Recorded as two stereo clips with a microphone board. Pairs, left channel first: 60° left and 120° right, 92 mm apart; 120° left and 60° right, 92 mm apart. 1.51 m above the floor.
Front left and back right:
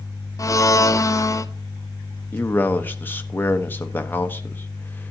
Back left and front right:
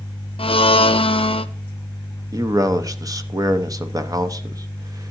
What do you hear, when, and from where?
0.4 s a blender: 115° left, 0.6 m
2.3 s a man speaking: 10° right, 0.8 m